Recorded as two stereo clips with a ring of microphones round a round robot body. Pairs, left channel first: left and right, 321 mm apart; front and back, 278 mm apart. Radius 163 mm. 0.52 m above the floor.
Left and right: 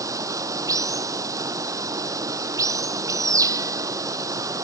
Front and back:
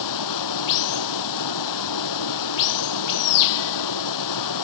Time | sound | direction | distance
0.0 | running water | 10° right | ?